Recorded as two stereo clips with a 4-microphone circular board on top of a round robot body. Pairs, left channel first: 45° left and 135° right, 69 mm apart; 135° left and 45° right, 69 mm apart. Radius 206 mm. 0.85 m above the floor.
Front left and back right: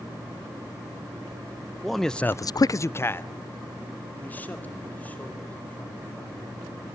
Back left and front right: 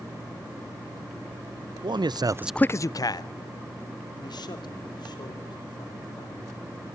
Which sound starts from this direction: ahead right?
A man speaking, at 1.8 s.